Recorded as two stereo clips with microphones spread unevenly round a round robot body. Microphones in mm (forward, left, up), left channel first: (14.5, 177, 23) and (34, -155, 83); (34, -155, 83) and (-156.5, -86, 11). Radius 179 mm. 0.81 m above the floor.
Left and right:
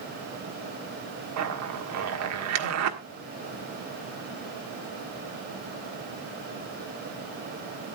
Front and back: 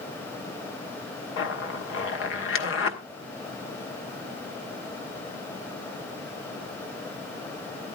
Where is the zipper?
40° right, 1.6 m.